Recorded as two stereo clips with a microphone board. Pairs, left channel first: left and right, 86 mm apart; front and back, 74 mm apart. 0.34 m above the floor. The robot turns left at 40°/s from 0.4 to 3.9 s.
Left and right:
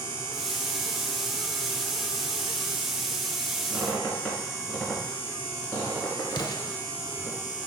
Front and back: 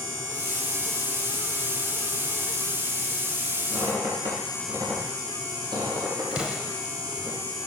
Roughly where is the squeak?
Behind.